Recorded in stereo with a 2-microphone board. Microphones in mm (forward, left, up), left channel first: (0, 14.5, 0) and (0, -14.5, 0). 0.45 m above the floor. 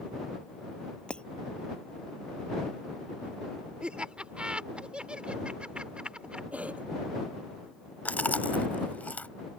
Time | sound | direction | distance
1.1 | breaking glass | 35° left (ahead or behind) | ?
3.8 | laughter | 40° right (ahead or behind) | ?
6.5 | a cough | 50° right (ahead or behind) | ?
8.1 | chewing | 75° left (ahead or behind) | ?